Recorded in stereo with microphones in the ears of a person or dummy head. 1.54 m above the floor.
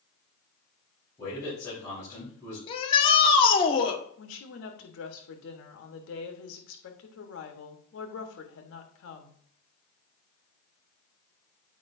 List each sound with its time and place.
1.2 s a man speaking: 15° left (ahead or behind), 4 m
2.7 s a shout: 30° left (ahead or behind), 1.3 m
4.2 s a woman speaking: 80° left, 1.3 m